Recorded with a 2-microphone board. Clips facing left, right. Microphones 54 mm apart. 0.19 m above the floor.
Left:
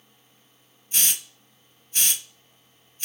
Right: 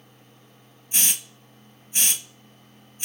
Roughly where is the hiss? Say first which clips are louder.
Right 1 dB; centre.